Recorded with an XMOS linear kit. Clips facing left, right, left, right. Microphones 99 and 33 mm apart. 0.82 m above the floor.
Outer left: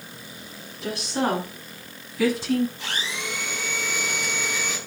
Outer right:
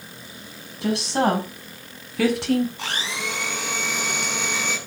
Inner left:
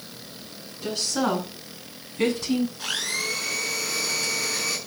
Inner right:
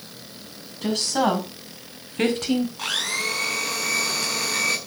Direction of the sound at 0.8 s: 80° right.